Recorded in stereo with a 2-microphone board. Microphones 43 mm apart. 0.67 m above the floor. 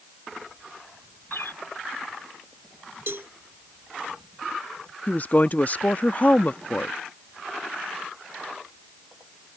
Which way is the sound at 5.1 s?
40° left (ahead or behind).